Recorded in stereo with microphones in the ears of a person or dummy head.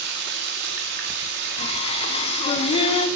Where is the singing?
40° left (ahead or behind), 1.4 m.